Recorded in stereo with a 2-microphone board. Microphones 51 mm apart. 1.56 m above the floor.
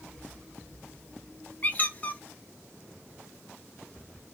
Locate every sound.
1.6 s a squeak: 30° left (ahead or behind), 0.5 m